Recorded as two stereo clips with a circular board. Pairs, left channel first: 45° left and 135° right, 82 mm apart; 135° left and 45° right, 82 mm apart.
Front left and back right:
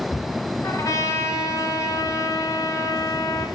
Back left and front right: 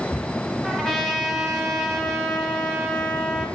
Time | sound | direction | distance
0.6 | a trumpet | 50° left | 1.3 m